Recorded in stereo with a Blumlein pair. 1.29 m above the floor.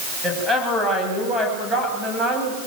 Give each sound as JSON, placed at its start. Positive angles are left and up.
{"t": 0.2, "sound": "a woman speaking", "azimuth_deg": 0, "distance_m": 9.0}